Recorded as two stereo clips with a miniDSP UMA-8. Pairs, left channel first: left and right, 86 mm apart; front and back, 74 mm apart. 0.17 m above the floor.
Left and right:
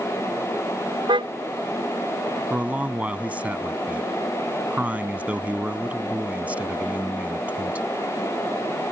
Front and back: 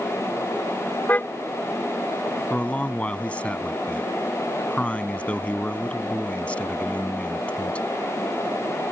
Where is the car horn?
65° right.